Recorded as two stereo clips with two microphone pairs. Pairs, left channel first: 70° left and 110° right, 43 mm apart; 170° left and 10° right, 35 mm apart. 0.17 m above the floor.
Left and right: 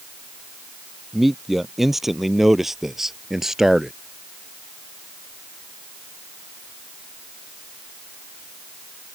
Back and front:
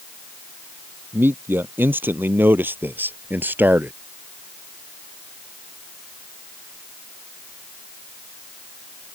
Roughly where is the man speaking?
Ahead.